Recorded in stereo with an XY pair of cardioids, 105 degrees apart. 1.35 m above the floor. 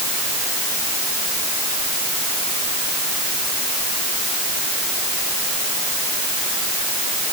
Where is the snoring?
I don't hear snoring.